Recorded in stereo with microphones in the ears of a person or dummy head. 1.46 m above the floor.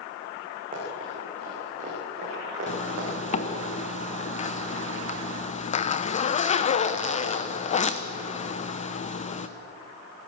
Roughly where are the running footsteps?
Right.